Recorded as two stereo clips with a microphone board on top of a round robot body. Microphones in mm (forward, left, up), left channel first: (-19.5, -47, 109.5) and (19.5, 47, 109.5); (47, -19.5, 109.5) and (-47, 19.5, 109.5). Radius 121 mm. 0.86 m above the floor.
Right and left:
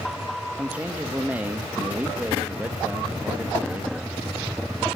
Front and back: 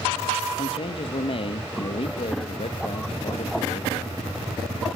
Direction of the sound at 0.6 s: 10° right.